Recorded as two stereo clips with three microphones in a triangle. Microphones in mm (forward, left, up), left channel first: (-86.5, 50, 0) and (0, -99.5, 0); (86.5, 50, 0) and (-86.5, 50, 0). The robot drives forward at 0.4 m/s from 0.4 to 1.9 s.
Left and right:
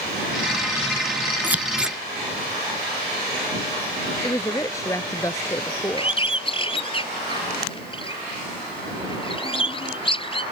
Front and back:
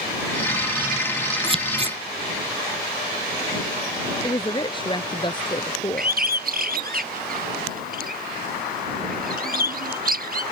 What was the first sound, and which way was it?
Scissors, 135° right.